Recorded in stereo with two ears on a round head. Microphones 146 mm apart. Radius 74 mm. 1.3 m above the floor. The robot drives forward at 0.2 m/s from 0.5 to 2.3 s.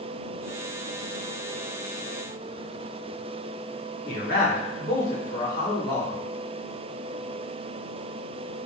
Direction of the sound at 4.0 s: 65° left (ahead or behind).